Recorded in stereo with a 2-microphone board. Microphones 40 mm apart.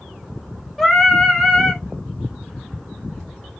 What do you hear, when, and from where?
0.8 s singing: 5° left (ahead or behind), 1.3 m